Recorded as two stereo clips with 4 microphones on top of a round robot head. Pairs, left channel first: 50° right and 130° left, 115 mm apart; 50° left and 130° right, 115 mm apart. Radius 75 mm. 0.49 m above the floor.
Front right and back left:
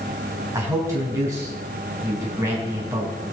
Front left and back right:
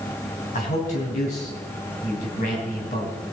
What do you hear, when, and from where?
0.5 s a man speaking: 65° left, 3.5 m